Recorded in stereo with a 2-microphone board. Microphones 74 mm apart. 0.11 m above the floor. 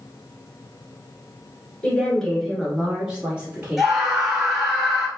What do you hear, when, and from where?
1.8 s a woman speaking: 15° left (ahead or behind), 1.3 m; by 3.9 s 20° right (ahead or behind), 1.8 m
3.8 s a scream: 5° right (ahead or behind), 1.4 m